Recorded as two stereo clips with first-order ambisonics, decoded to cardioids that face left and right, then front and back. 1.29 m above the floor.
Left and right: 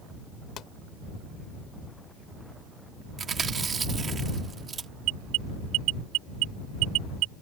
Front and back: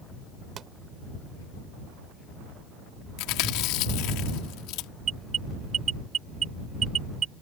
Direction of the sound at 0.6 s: 130° left.